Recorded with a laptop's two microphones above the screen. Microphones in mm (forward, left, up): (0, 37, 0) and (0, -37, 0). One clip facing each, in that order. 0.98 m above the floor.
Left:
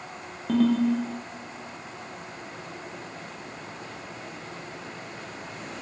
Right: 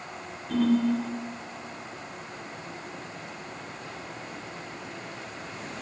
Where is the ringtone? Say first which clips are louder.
Left 2 dB; 75° left (ahead or behind), 0.8 m.